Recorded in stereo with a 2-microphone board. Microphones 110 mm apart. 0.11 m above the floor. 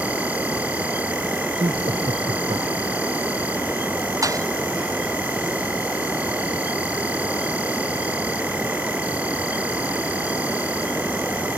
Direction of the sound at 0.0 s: 10° right (ahead or behind).